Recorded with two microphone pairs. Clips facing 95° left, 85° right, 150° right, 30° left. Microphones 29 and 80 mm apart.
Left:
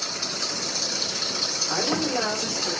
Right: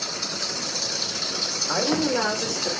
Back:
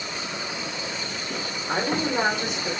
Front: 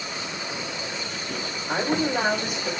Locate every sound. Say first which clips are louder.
1.7 s a woman speaking: right 4 dB, front 1 dB; 75° right, 6 m